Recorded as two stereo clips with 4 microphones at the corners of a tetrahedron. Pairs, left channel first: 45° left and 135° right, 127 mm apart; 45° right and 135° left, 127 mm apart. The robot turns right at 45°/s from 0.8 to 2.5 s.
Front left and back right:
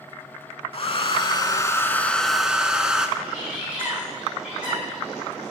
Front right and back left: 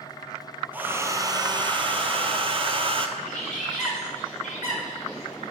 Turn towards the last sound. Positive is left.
turn(degrees=-55)